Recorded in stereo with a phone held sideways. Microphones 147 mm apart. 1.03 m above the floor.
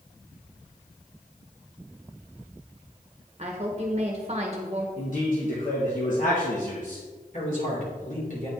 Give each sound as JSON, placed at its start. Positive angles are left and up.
{"t": 3.4, "sound": "a woman speaking", "side_deg": -45, "distance_m": 1.0}
{"t": 5.0, "sound": "a man speaking", "side_deg": 60, "distance_m": 1.2}
{"t": 7.3, "sound": "a man speaking", "side_deg": 60, "distance_m": 3.0}